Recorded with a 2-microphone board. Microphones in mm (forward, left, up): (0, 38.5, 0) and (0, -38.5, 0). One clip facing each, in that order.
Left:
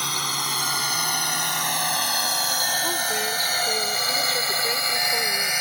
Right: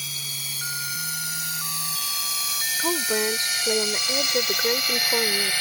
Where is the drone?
75° left (ahead or behind); by 5.6 s 20° left (ahead or behind).